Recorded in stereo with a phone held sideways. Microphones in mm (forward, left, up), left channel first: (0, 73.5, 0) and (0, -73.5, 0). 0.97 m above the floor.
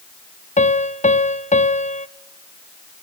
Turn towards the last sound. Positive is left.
turn(degrees=50)  # may be behind; listen again after turning